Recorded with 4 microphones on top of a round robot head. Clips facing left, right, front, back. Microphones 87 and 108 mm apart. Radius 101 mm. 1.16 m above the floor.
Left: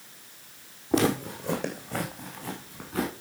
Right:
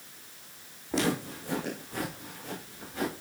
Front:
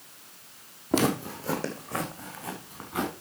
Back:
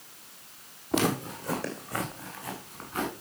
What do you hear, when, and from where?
0.9 s footsteps: 35° left, 1.9 m; by 3.1 s 65° left, 5 m